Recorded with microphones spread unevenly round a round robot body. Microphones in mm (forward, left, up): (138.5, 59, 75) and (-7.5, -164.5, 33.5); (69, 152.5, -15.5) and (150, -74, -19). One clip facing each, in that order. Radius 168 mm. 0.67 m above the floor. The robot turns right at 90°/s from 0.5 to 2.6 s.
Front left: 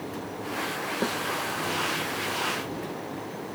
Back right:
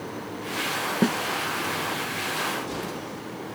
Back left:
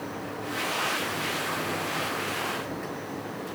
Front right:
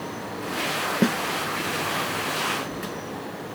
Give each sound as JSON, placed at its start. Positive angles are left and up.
{"t": 1.0, "sound": "a snare drum", "azimuth_deg": -75}